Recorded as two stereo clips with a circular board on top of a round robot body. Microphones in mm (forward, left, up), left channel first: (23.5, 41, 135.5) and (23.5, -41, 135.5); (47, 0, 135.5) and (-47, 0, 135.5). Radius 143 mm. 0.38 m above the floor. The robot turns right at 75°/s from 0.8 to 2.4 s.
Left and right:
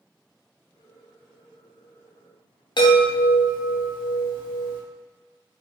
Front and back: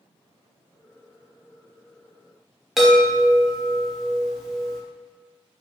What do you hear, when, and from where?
2.8 s a chime: 95° left, 0.8 m